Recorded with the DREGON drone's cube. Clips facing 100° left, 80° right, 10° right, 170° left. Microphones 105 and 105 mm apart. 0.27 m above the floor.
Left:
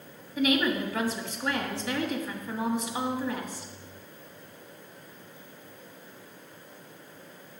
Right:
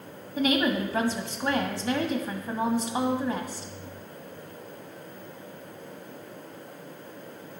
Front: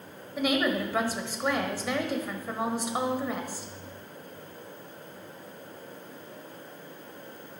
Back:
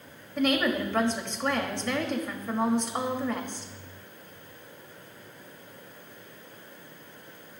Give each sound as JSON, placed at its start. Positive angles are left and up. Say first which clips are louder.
{"t": 0.4, "sound": "a woman speaking", "louder": "right 1 dB, back 1 dB", "azimuth_deg": -85, "distance_m": 1.4}